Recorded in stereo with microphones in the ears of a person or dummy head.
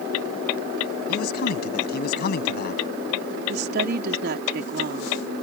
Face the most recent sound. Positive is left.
turn(degrees=-55)  # may be behind; listen again after turning